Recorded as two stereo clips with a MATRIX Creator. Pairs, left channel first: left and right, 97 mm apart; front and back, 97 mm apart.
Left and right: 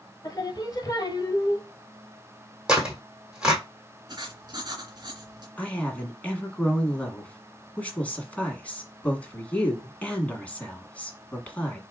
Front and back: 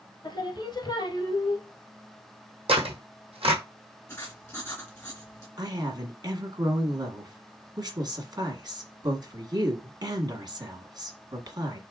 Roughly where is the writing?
Ahead right.